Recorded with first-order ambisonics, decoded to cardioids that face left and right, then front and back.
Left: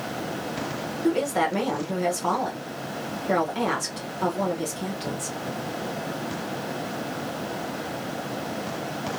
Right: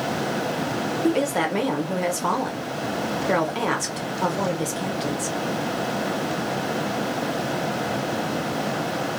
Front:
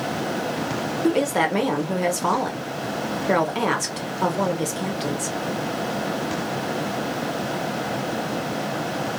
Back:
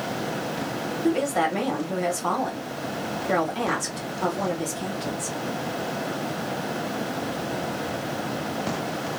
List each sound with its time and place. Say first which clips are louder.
1.0 s a woman speaking: even, front 2 dB; 30° right, 1.0 m